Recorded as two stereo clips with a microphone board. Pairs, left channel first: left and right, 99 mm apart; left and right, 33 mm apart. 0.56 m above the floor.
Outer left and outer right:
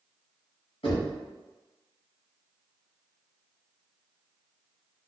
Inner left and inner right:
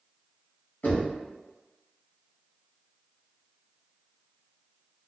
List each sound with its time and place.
0.8 s knocking: 65° left (ahead or behind), 1.8 m